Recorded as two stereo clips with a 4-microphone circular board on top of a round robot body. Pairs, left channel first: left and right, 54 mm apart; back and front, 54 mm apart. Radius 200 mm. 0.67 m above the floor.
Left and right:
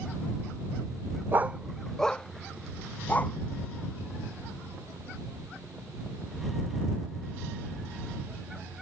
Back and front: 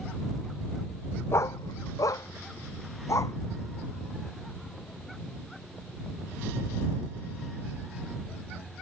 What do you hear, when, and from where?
1.3 s a dog barking: 140° right; by 3.4 s 150° left